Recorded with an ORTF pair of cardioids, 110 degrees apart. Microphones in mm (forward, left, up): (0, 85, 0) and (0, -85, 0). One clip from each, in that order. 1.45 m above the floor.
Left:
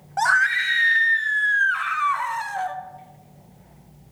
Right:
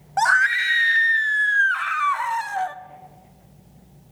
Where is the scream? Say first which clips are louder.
Right 1 dB; 15° right, 0.7 m.